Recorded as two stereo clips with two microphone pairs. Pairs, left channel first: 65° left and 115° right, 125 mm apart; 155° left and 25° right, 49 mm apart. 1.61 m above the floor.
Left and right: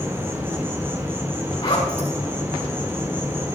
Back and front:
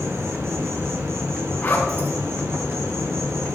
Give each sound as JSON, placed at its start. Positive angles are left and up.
{"t": 0.0, "sound": "an insect", "azimuth_deg": -40, "distance_m": 1.7}
{"t": 1.6, "sound": "a zipper", "azimuth_deg": 110, "distance_m": 2.5}